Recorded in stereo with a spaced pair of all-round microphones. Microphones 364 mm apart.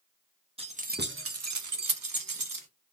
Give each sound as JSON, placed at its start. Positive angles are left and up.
{"t": 0.6, "sound": "keys jangling", "side_deg": -15, "distance_m": 0.7}